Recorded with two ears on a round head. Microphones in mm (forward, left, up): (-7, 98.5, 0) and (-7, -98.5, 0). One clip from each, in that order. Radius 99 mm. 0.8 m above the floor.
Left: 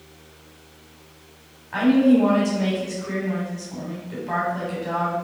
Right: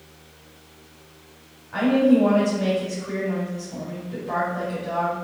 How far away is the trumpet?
I don't hear a trumpet.